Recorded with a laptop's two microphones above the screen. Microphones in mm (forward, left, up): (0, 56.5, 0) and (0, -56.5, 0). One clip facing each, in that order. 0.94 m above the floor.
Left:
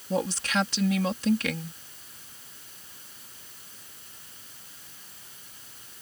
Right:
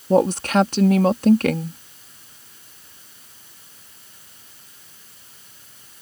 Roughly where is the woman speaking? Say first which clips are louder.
Right 11 dB; right.